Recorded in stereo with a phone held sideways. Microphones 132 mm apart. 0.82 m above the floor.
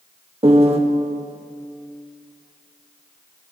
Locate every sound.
0.4 s a piano: 50° right (ahead or behind), 0.8 m